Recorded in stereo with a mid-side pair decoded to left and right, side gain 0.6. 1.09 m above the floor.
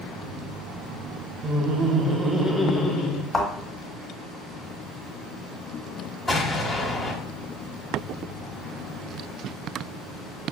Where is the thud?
15° left, 1.4 m.